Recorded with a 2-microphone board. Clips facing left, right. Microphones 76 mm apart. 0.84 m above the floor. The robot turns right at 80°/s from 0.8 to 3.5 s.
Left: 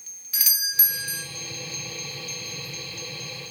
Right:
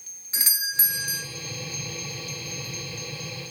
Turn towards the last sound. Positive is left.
turn(degrees=175)